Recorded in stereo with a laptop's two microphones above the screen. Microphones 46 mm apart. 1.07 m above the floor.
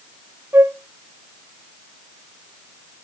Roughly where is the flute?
Right.